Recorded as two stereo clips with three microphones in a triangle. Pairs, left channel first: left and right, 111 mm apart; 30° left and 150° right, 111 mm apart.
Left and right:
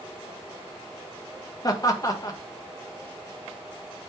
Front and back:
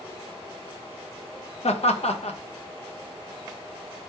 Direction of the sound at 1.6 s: 35° left.